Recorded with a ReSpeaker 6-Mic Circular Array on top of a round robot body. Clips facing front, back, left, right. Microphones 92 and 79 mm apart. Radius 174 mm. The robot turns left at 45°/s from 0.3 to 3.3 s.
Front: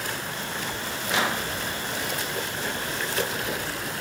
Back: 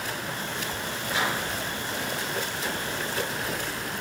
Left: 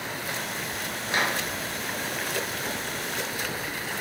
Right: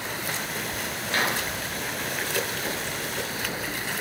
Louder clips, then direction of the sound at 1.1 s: Front 2 dB, even; 20° left.